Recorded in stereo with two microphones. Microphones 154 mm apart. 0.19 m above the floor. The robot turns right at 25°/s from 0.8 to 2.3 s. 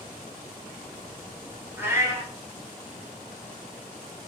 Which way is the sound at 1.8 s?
10° right (ahead or behind).